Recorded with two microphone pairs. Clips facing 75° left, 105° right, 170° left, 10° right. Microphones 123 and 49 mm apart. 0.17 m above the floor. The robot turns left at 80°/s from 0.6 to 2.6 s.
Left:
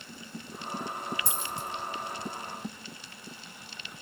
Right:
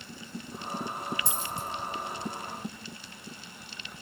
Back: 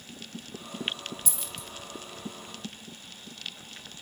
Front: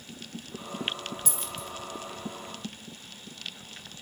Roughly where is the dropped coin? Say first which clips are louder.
Right 1 dB, front 3 dB; ahead right.